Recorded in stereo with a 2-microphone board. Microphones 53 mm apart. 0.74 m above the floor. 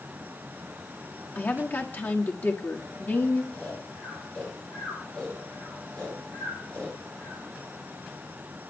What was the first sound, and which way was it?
A woman speaking, 40° left (ahead or behind).